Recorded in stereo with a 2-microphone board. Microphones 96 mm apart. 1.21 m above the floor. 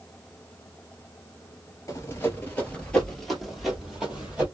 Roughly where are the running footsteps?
Left.